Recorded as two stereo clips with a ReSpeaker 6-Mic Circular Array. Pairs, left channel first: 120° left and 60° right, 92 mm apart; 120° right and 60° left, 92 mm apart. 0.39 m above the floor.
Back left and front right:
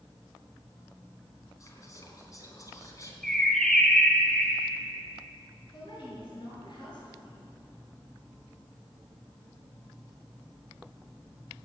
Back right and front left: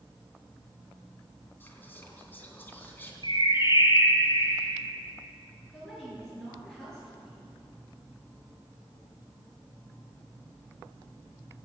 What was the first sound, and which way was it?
Whispering, 170° left.